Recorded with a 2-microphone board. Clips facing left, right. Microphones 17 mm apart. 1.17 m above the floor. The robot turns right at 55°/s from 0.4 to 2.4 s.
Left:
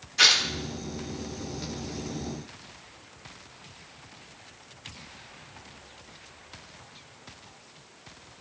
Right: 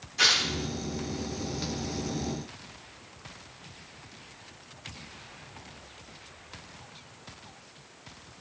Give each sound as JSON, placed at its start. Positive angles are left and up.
{"t": 0.2, "sound": "tearing paper", "side_deg": 25, "distance_m": 0.8}